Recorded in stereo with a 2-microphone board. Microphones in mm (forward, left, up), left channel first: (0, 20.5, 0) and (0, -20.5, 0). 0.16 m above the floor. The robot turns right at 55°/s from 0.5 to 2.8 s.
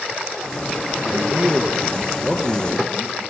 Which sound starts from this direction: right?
A man speaking, at 1.1 s.